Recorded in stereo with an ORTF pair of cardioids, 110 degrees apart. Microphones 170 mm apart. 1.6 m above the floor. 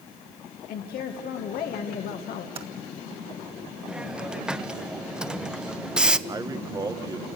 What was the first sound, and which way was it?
A woman speaking, 65° left.